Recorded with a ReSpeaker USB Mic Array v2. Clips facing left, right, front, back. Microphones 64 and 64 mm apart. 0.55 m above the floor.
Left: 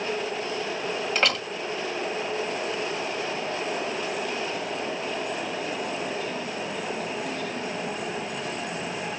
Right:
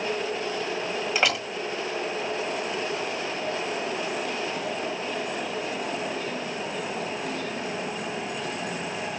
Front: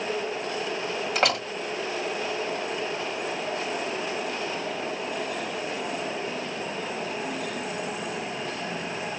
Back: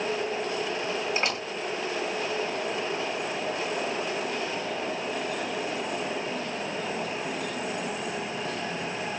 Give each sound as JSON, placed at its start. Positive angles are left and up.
{"t": 1.1, "sound": "a door slam", "azimuth_deg": -5, "distance_m": 2.0}